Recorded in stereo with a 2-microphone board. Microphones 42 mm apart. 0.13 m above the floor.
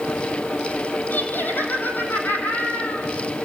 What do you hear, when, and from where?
1.1 s laughter: 50° left (ahead or behind), 5 m